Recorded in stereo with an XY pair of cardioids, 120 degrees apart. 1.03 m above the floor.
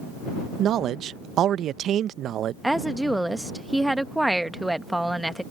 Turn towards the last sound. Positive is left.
turn(degrees=-5)